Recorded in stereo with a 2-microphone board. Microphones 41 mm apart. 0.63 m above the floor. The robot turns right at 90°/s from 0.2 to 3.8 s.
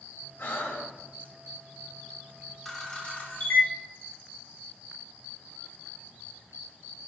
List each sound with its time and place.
0.4 s breathing: 55° left (ahead or behind), 0.7 m; by 1.3 s 35° left (ahead or behind), 0.7 m
2.6 s a camera shutter: 5° left (ahead or behind), 0.9 m; by 3.7 s 45° left (ahead or behind), 0.9 m